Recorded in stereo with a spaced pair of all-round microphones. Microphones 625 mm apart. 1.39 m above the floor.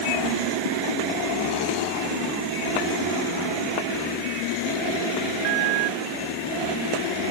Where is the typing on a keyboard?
No typing on a keyboard in this recording.